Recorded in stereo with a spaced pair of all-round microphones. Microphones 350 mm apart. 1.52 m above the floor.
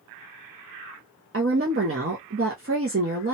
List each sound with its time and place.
1.3 s a woman speaking: 40° right (ahead or behind), 0.6 m